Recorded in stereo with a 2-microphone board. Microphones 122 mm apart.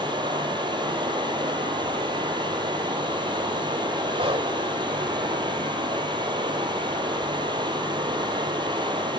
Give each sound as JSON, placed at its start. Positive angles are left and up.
{"t": 0.0, "sound": "running water", "side_deg": -40, "distance_m": 4.5}
{"t": 4.2, "sound": "breathing", "side_deg": -55, "distance_m": 2.0}